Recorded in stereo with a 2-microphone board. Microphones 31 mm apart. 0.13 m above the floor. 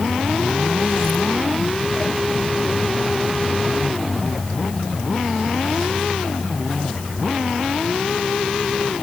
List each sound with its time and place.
Only background noise.